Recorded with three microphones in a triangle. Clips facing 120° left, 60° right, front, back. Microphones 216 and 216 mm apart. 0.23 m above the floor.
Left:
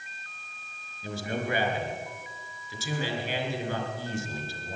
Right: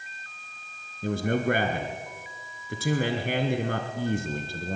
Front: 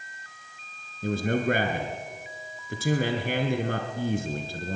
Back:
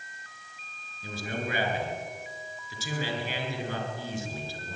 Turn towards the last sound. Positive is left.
turn(degrees=-30)